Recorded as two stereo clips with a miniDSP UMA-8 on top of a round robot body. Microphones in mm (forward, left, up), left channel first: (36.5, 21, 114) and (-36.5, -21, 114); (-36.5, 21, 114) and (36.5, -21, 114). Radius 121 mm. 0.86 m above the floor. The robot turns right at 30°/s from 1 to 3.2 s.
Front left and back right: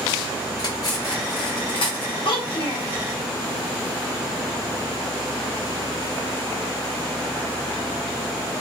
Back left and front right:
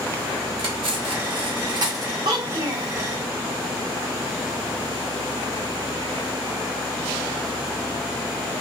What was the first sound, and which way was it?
Cutlery clinking, 15° right.